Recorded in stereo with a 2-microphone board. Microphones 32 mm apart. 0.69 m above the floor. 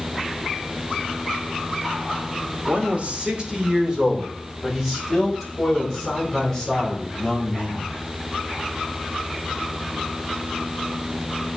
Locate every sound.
2.7 s a man speaking: 50° right (ahead or behind), 2 m; by 7.9 s 15° left (ahead or behind), 5.5 m